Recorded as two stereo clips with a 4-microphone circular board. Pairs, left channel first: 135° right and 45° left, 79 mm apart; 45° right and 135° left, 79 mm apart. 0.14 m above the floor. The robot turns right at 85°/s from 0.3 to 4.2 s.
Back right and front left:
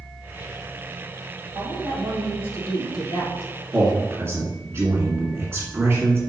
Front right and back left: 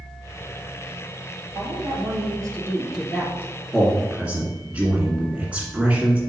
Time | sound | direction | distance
1.6 | a woman speaking | 95° left | 2.5 m
3.7 | a man speaking | 35° left | 1.8 m